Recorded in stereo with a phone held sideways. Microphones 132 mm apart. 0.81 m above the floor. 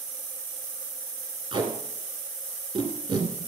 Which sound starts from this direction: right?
Tape being pulled, at 1.5 s.